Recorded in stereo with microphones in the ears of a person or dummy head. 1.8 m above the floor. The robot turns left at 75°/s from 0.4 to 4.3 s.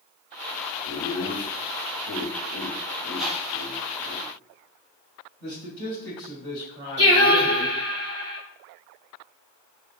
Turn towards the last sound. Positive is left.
turn(degrees=-25)  # may be behind; listen again after turning